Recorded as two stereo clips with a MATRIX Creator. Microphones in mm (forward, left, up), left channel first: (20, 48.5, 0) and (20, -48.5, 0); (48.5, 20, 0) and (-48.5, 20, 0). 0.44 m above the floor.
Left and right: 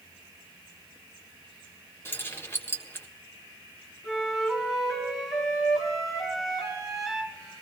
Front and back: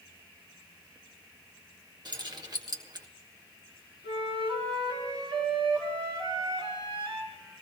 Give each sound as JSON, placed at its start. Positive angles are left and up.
{"t": 2.0, "sound": "keys jangling", "azimuth_deg": 150, "distance_m": 1.2}
{"t": 4.0, "sound": "a flute", "azimuth_deg": -175, "distance_m": 4.0}